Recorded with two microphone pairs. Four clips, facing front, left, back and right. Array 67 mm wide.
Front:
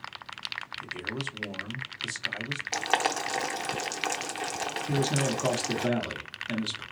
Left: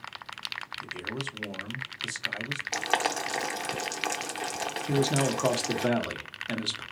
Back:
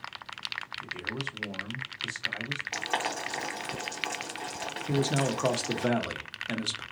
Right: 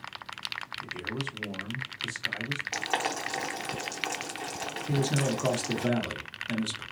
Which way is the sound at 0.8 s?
30° left.